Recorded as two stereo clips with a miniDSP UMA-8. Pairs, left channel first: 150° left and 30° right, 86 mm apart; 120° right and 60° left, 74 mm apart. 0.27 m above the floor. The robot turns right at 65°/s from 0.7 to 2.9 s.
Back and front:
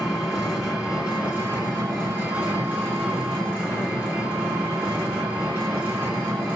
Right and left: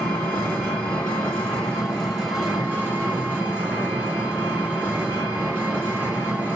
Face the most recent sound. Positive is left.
turn(degrees=30)